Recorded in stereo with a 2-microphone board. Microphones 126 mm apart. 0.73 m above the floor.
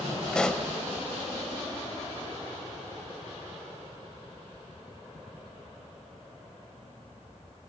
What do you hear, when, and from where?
0.3 s a pop: 5° left (ahead or behind), 0.8 m